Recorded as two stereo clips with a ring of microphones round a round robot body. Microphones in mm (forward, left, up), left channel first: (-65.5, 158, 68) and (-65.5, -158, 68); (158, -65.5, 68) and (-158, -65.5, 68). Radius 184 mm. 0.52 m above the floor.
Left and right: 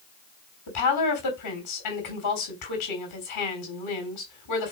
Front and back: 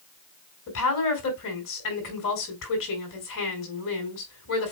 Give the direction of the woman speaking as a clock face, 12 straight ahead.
10 o'clock.